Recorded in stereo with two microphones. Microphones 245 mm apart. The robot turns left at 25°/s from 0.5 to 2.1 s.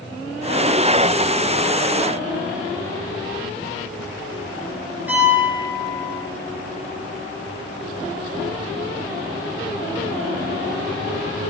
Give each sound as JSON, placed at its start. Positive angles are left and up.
{"t": 5.1, "sound": "a piano", "side_deg": -5, "distance_m": 5.5}